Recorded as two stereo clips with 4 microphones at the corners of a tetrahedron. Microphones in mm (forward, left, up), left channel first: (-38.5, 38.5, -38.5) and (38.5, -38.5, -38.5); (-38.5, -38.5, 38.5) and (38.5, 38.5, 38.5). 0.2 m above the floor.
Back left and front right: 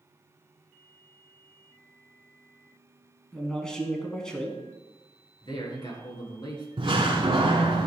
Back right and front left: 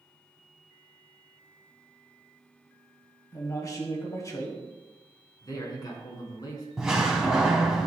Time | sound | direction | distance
3.3 | a man speaking | 150° right | 1.6 m
5.4 | a man speaking | 175° left | 2.5 m
6.8 | a door slam | 40° right | 1.4 m